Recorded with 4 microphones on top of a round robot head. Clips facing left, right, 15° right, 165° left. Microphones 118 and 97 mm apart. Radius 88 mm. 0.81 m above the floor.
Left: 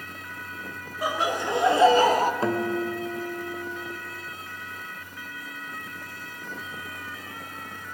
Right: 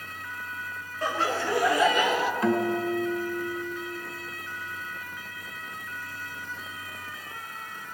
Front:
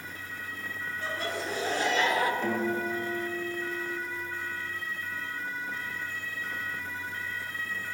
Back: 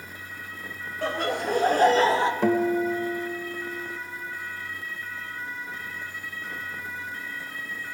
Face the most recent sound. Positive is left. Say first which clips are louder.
# right 1 dB, back 7 dB
turn(degrees=150)